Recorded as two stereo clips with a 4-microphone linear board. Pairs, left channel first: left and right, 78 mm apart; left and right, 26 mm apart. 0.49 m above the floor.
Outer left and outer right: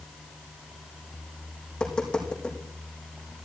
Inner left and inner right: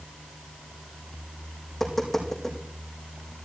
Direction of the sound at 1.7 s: 10° left (ahead or behind).